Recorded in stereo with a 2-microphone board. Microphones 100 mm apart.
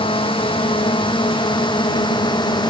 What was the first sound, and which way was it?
A drone, 65° left (ahead or behind).